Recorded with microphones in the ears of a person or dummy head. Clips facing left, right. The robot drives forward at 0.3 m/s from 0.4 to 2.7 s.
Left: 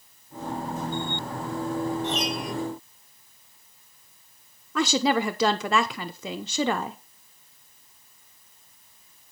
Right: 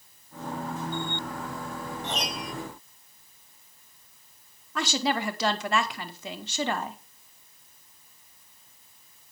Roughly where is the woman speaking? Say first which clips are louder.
Left 5 dB; left.